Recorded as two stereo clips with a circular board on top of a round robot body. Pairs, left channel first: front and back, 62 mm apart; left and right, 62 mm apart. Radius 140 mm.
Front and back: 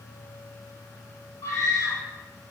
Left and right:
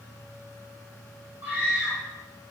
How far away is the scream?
About 4 m.